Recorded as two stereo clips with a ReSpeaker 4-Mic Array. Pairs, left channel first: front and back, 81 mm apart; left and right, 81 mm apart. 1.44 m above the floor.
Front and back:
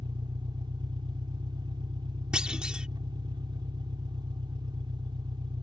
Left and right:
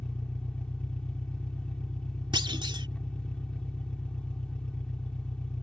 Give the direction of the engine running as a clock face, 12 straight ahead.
6 o'clock.